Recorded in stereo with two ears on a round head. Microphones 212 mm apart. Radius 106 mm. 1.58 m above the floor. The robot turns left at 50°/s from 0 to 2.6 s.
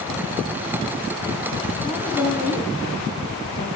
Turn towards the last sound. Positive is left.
turn(degrees=40)  # may be behind; listen again after turning